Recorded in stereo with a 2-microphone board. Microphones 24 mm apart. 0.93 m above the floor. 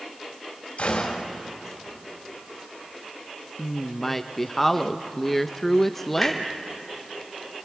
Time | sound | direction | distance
0.8 | a gunshot | 65° left (ahead or behind) | 3 m
3.6 | a woman speaking | 10° left (ahead or behind) | 0.6 m
6.2 | a clunk | 5° left (ahead or behind) | 3 m